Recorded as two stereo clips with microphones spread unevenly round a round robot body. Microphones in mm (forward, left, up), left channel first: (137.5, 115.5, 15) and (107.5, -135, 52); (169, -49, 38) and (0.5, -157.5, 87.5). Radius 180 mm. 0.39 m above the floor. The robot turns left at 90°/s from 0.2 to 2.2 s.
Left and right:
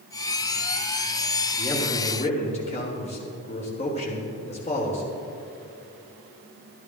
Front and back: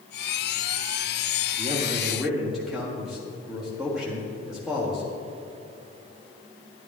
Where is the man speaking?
160° left, 1.5 m; by 5.0 s 100° left, 1.5 m.